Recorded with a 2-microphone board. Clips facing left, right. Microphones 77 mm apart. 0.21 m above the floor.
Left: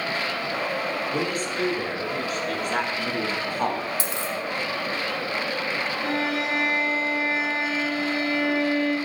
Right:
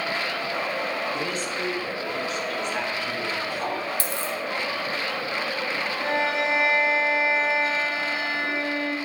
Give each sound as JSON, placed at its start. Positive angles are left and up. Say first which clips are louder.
{"t": 1.1, "sound": "a man speaking", "louder": "left 2 dB", "side_deg": 50, "distance_m": 4.5}
{"t": 4.0, "sound": "a dropped coin", "louder": "even", "side_deg": 20, "distance_m": 1.8}
{"t": 6.0, "sound": "a violin", "louder": "right 3 dB", "side_deg": -25, "distance_m": 3.5}